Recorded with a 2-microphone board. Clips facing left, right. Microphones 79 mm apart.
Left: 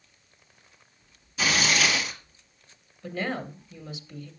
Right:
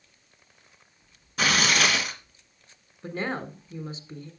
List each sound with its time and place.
1.4 s tearing paper: 55° right (ahead or behind), 2 m
3.0 s a woman speaking: 35° right (ahead or behind), 1.6 m